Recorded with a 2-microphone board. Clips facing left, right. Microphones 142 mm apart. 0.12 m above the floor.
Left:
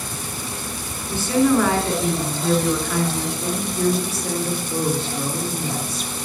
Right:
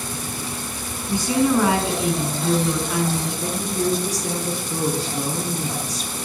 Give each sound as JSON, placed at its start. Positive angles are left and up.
{"t": 1.1, "sound": "a woman speaking", "side_deg": -15, "distance_m": 1.4}
{"t": 3.4, "sound": "a woman speaking", "side_deg": -40, "distance_m": 1.7}